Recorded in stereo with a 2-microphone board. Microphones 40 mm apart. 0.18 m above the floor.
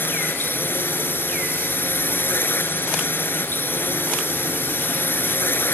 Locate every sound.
0.0 s a drone: 60° left (ahead or behind)